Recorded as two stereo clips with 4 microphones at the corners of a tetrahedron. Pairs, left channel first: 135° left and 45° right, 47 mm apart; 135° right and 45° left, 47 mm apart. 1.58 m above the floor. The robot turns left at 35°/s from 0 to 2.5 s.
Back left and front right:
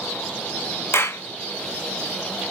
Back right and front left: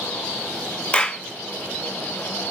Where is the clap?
160° left, 0.6 m; by 1.2 s 150° left, 0.6 m.